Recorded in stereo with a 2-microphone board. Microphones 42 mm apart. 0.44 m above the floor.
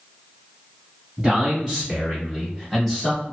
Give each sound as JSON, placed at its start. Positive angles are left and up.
{"t": 1.2, "sound": "a man speaking", "side_deg": -25, "distance_m": 1.4}